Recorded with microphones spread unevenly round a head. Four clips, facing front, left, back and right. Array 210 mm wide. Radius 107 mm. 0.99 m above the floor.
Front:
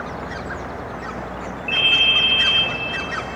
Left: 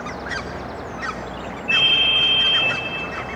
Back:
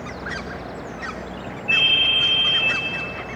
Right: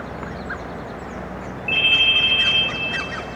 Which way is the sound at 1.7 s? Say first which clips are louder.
Even, front 1 dB; 80° left.